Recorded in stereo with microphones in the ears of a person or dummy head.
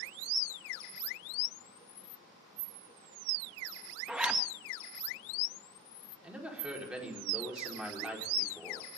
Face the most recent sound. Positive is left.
turn(degrees=-5)  # may be behind; listen again after turning